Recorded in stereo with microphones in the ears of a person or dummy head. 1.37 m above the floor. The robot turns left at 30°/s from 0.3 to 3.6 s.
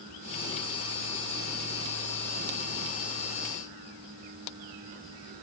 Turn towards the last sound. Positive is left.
No sound to turn to.